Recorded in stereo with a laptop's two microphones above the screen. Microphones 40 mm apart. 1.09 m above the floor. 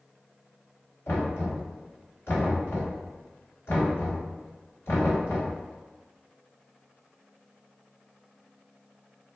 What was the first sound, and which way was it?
Knocking, 80° left.